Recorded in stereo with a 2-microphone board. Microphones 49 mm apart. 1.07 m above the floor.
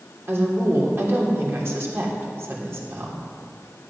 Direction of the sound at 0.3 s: 60° right (ahead or behind).